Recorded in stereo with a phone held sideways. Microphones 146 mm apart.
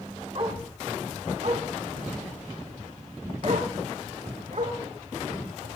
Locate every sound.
0.3 s a dog barking: 45° right (ahead or behind), 3 m; by 5.7 s 60° right (ahead or behind), 7 m